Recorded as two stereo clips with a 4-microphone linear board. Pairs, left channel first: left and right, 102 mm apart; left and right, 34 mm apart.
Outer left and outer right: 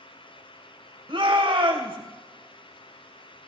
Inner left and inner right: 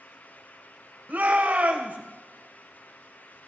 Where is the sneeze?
I don't hear a sneeze.